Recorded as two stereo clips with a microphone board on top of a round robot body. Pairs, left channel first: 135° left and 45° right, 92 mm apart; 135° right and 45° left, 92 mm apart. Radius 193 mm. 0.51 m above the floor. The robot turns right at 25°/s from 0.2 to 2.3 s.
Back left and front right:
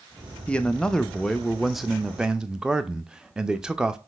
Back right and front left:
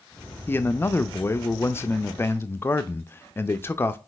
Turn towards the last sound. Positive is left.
turn(degrees=-115)